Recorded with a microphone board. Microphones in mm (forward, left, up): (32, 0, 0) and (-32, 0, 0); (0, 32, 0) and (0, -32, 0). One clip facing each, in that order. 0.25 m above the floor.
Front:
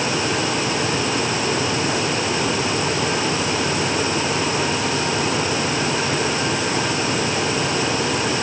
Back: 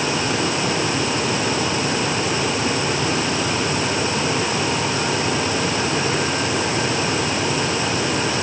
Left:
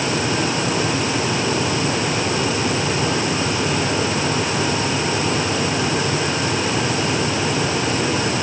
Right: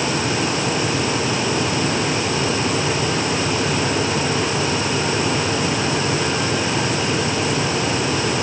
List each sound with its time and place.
Only background noise.